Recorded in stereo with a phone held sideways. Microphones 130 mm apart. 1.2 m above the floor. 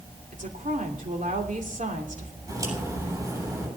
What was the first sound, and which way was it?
A woman speaking, 80° right.